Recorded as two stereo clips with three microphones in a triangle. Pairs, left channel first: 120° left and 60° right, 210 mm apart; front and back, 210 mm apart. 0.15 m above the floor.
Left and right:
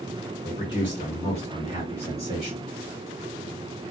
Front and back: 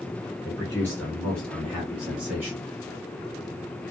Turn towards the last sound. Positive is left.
turn(degrees=115)